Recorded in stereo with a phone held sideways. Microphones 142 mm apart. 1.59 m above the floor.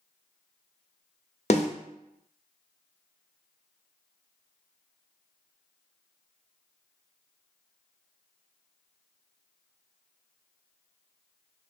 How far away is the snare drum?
About 0.6 m.